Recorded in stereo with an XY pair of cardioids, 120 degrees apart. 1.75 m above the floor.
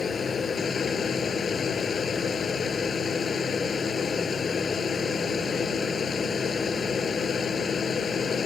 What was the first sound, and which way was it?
A machine running, 35° left.